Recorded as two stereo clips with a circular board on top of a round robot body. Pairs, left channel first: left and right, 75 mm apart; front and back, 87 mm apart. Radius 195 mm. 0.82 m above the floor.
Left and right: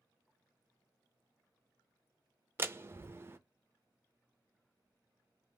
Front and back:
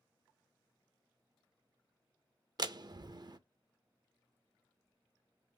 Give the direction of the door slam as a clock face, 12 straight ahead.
5 o'clock.